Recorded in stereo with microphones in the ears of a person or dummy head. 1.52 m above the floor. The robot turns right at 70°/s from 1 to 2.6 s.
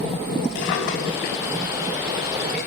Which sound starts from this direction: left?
A drawer, at 0.6 s.